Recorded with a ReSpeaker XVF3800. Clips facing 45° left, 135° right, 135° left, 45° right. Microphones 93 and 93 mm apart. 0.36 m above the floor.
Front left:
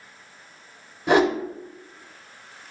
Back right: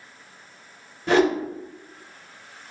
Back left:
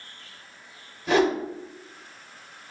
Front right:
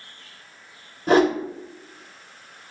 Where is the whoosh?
20° right, 0.6 m.